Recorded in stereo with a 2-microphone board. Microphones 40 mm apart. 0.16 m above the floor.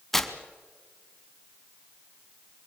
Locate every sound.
0.1 s tearing paper: 5° left (ahead or behind), 1.3 m